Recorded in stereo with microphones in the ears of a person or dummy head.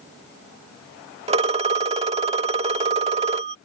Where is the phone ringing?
30° right (ahead or behind).